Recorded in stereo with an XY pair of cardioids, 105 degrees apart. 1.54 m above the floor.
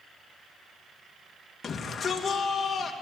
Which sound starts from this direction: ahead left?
A shout, at 1.6 s.